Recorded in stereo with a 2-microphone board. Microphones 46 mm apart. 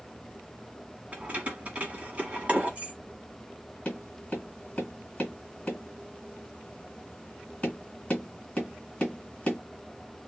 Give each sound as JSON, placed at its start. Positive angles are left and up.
{"t": 1.1, "sound": "keys jangling", "side_deg": -30, "distance_m": 1.0}
{"t": 3.9, "sound": "tapping", "side_deg": 25, "distance_m": 1.9}